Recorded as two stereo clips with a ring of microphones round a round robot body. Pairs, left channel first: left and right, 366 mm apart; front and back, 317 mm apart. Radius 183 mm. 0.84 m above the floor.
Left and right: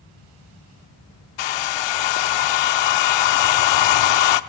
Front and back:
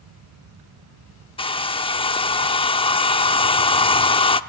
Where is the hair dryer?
75° left, 0.9 m.